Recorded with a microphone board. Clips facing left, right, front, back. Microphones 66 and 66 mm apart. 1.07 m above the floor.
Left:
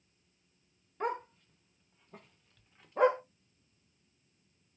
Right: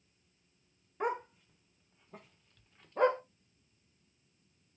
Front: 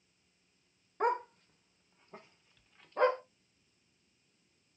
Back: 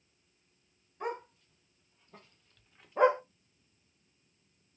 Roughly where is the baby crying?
No baby crying in this recording.